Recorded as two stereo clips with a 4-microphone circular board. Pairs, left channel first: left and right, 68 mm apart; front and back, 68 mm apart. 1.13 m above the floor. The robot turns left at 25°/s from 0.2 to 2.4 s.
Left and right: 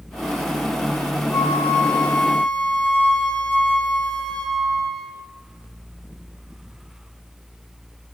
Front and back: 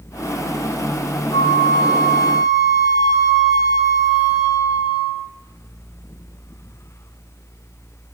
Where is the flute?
35° left, 4 m; by 5.3 s 10° left, 4 m.